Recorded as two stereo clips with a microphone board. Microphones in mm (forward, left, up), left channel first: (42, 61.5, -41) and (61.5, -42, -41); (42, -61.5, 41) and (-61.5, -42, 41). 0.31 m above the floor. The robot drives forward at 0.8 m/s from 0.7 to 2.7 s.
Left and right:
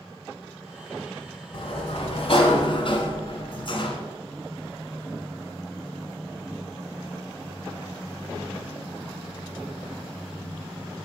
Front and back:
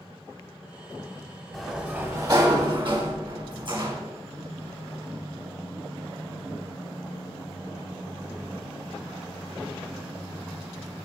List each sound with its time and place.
1.5 s a sliding door: 75° left, 0.9 m; by 4.0 s 135° left, 1.1 m